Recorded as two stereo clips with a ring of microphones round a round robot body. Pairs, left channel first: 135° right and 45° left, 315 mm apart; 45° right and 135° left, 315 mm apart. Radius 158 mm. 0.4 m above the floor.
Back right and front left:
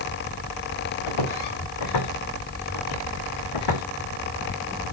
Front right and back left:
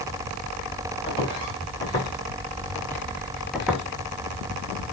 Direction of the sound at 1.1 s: 120° right.